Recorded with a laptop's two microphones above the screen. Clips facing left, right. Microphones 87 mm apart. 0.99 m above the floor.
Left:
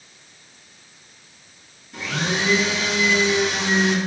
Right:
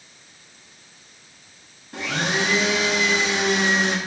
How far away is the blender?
About 1.1 m.